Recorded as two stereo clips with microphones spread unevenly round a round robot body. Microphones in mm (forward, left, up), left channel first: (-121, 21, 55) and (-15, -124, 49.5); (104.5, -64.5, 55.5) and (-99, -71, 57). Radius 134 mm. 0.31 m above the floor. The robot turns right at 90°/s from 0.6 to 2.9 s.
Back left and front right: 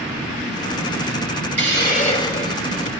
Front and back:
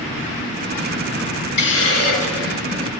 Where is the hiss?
30° right, 4.5 m; by 2.9 s 90° left, 4.5 m.